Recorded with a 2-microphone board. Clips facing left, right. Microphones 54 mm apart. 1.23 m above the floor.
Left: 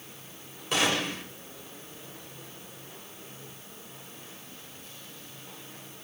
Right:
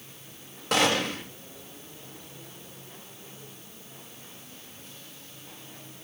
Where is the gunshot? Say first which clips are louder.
Right 3 dB; 75° right (ahead or behind), 1.9 m.